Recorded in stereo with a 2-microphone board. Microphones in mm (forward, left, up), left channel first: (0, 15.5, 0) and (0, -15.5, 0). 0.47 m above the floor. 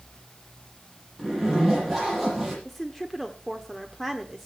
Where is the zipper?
Centre (ahead or behind), 8 m.